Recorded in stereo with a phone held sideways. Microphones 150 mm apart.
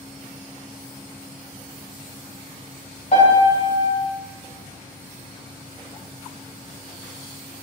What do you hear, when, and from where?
3.1 s a piano: 50° left (ahead or behind), 2.5 m